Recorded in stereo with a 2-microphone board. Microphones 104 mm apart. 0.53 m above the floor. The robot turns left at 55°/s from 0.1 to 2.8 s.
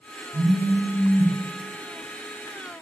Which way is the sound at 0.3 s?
75° right.